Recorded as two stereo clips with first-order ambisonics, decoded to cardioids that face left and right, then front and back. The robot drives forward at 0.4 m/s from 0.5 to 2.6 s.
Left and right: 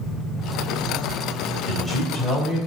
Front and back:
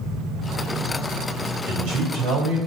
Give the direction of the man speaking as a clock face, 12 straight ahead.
6 o'clock.